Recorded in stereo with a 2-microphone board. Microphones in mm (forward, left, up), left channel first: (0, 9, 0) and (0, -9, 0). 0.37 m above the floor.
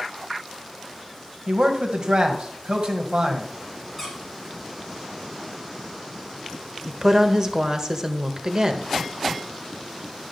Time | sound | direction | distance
1.5 | a man speaking | 50° right (ahead or behind) | 1.8 m
4.0 | a squeak | 15° left (ahead or behind) | 3.5 m
6.9 | a woman speaking | 35° right (ahead or behind) | 1.0 m